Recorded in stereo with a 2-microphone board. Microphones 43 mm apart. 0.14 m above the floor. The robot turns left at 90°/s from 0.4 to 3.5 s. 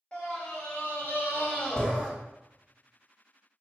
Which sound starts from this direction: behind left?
A scream, at 0.1 s.